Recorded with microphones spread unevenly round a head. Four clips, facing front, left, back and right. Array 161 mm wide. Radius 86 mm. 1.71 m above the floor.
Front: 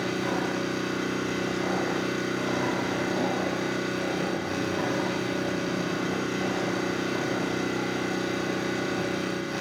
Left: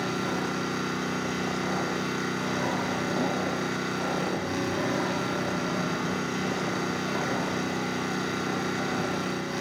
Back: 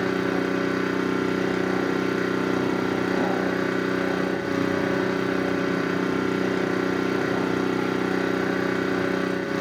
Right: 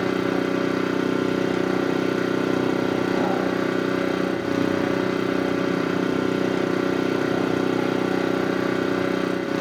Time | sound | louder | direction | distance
0.0 | an engine running | right 7 dB, back 4 dB | 100° right | 3.5 m